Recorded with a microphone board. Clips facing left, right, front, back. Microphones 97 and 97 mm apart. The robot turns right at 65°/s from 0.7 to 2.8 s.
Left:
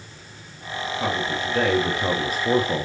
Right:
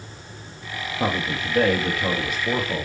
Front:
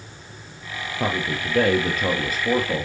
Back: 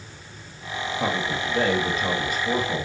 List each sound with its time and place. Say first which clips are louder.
1.0 s a man speaking: right 1 dB, front 2 dB; 40° right, 2 m; by 2.9 s 80° left, 2 m